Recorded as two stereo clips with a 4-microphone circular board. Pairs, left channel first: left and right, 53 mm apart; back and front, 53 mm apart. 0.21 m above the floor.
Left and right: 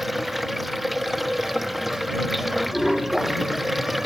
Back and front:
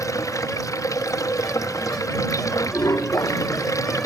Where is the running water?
Straight behind.